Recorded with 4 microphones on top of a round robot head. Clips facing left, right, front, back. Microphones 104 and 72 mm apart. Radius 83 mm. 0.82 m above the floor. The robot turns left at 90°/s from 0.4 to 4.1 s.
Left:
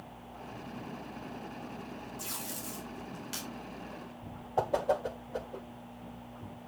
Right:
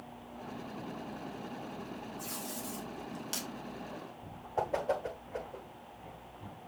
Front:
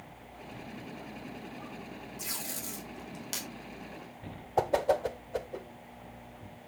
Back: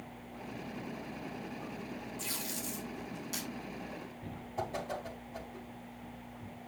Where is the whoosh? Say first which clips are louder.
Left 3 dB, front 11 dB; 15° left, 1.2 m.